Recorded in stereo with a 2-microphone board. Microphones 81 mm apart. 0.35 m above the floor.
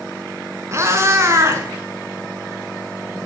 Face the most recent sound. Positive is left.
turn(degrees=-35)  # may be behind; listen again after turning